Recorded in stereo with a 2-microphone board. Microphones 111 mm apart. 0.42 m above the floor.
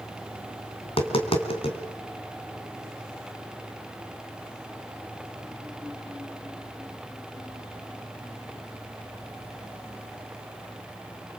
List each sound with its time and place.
0.8 s tapping: 55° left (ahead or behind), 3 m